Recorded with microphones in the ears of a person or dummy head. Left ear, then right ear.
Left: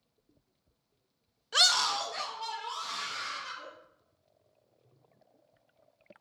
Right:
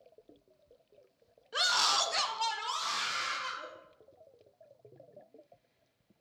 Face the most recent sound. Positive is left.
turn(degrees=-65)  # may be behind; listen again after turning